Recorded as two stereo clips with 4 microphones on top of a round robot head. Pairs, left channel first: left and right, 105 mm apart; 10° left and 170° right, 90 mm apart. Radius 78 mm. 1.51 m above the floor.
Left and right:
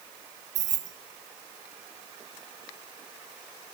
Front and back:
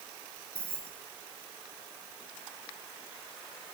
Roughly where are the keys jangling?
Right.